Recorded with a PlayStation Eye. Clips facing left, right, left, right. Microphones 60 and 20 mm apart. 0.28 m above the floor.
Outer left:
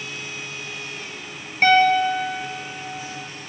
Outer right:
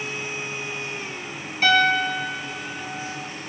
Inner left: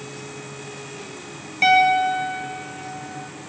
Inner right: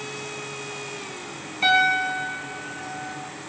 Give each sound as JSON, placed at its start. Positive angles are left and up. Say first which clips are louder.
{"t": 1.6, "sound": "a piano", "louder": "outer left 3 dB, inner left 4 dB", "side_deg": 50, "distance_m": 5.0}